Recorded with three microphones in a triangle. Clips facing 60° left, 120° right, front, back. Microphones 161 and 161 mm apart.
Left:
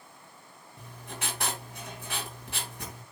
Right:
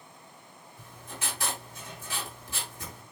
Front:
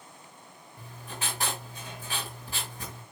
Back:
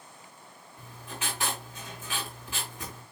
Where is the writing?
50° left, 4 m.